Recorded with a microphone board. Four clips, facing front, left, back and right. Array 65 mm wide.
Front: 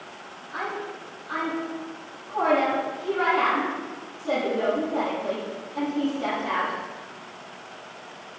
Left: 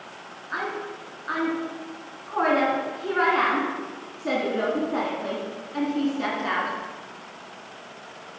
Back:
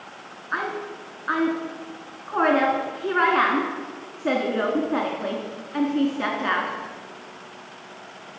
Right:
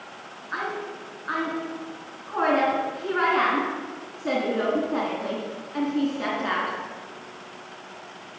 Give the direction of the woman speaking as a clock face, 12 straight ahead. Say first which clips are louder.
Even, back 4 dB; 6 o'clock.